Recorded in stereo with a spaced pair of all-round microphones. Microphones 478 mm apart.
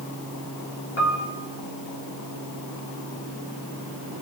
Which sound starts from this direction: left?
A piano, at 1.0 s.